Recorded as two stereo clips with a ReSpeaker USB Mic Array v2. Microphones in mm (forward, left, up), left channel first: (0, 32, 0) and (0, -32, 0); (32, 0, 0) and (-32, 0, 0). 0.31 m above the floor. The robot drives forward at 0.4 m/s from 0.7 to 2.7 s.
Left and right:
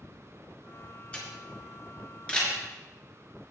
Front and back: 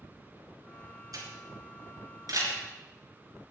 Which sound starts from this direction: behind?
A camera shutter, at 1.1 s.